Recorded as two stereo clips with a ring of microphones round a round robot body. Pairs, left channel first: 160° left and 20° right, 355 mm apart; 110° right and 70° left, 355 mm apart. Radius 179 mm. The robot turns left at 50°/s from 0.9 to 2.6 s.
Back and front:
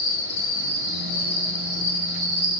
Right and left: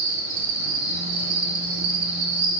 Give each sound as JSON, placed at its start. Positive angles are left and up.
{"t": 0.0, "sound": "an insect", "azimuth_deg": 100, "distance_m": 1.2}